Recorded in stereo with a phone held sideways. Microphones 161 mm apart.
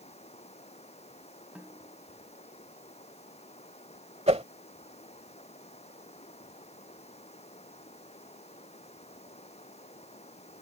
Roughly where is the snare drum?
Centre.